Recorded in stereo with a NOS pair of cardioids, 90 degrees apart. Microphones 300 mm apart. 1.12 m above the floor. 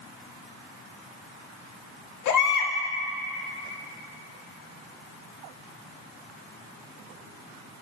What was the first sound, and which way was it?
A baby crying, 65° left.